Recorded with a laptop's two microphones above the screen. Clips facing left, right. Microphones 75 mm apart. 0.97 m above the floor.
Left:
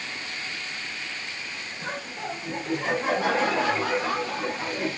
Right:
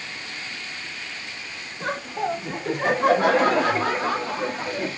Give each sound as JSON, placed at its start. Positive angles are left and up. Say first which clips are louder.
{"t": 1.8, "sound": "laughter", "louder": "right 8 dB", "side_deg": -75, "distance_m": 2.0}